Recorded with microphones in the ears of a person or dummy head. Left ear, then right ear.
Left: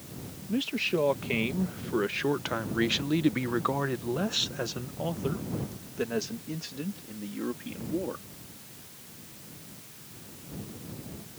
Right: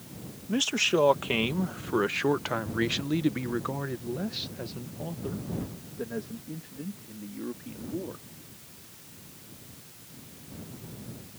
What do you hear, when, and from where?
0.5 s a man speaking: 45° right (ahead or behind); by 8.2 s 80° left